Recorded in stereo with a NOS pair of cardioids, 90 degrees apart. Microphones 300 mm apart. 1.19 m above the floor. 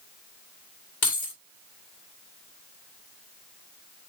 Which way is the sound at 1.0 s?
70° left.